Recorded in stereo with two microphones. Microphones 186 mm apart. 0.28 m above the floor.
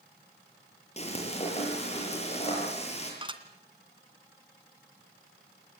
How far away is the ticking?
I don't hear ticking.